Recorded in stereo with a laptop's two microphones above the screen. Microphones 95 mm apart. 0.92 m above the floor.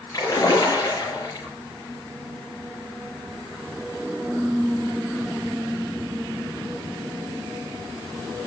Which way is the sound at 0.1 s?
40° left (ahead or behind).